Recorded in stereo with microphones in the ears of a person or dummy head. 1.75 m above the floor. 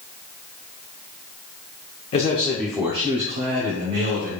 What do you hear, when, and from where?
2.1 s a man speaking: 35° left (ahead or behind), 0.6 m; by 4.4 s 65° right (ahead or behind), 1.1 m